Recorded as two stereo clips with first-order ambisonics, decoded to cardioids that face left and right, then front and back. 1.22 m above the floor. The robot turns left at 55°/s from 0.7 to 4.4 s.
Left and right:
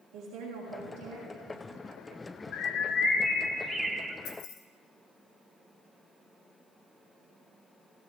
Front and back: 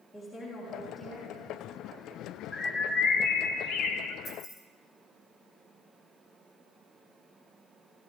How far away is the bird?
About 0.7 m.